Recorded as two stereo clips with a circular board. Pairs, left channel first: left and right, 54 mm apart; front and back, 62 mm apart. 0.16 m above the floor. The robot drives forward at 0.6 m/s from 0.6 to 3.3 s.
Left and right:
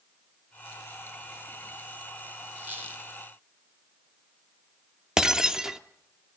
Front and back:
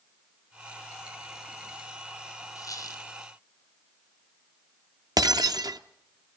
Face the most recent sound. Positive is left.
turn(degrees=-170)